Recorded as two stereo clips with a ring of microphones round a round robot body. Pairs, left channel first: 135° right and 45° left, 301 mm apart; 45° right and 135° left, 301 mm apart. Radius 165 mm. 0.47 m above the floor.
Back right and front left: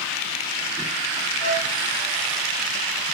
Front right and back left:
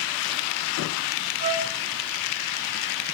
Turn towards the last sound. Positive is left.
turn(degrees=155)